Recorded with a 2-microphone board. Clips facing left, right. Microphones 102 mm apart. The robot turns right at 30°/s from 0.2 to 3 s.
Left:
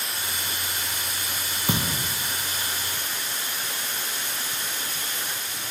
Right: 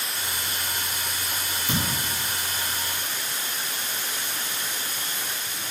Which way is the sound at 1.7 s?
65° left (ahead or behind).